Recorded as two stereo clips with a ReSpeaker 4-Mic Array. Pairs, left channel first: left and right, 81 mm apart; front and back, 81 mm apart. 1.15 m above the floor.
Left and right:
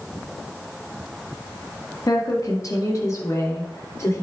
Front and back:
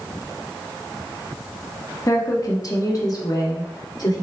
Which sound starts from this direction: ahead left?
A woman speaking, at 2.1 s.